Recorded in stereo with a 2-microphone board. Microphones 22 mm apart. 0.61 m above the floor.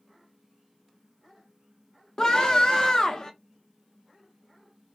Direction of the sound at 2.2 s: 30° left (ahead or behind).